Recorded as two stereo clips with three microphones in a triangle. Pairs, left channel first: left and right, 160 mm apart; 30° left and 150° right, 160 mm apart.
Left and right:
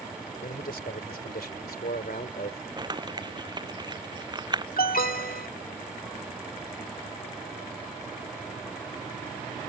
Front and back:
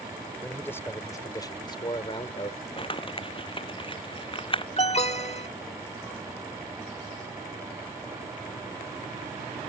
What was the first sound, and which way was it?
A man speaking, 110° left.